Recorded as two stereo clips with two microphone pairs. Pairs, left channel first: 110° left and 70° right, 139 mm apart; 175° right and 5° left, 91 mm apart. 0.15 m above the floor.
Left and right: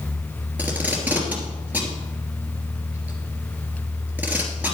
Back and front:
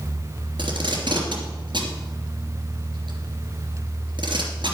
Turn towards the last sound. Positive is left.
turn(degrees=10)